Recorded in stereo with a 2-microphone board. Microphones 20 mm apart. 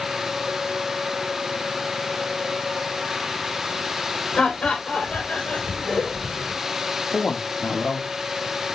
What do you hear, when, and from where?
4.3 s laughter: 85° left, 3.5 m; by 6.5 s 65° left (ahead or behind), 4 m
7.1 s a woman speaking: 75° left (ahead or behind), 1.7 m